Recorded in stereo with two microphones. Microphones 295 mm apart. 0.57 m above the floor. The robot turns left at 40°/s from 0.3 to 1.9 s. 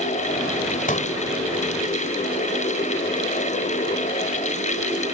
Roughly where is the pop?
Left.